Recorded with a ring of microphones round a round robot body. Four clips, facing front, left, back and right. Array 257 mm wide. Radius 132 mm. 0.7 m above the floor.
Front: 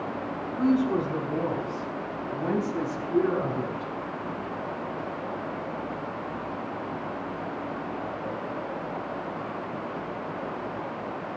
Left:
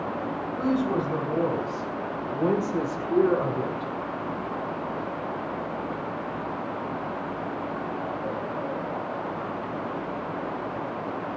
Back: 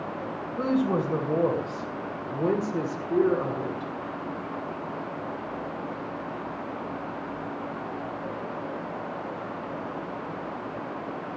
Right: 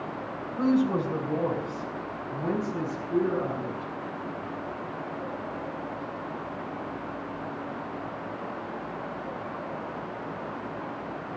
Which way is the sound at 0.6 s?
175° left.